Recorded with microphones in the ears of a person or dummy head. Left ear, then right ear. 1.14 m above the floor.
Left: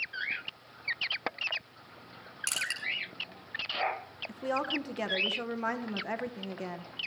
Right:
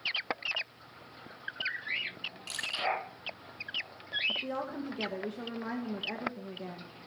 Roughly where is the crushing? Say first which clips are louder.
Left 3 dB; left.